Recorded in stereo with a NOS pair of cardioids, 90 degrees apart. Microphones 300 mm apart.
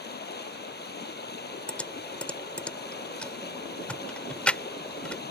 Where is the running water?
35° left.